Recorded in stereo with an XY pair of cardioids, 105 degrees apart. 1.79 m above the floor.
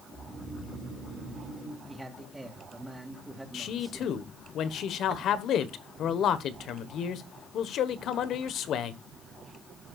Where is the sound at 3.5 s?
65° left, 1.3 m.